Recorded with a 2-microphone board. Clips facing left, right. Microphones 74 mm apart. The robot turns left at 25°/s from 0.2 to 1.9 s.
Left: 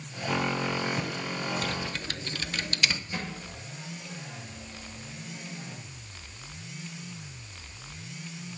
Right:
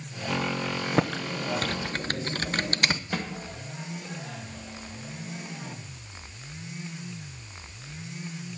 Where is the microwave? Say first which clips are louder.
Right 4 dB; 70° right (ahead or behind), 2 m.